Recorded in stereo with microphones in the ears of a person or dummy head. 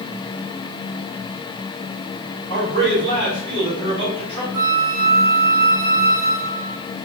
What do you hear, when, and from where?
2.5 s a man speaking: 55° right (ahead or behind), 1.6 m
4.5 s a flute: 20° right (ahead or behind), 1.8 m